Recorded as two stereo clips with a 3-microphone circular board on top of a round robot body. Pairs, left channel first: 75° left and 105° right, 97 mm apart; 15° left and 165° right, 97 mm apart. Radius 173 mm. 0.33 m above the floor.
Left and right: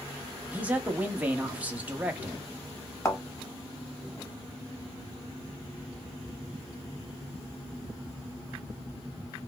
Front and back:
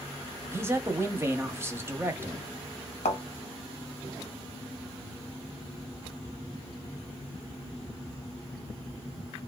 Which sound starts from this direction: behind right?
A man speaking, at 0.5 s.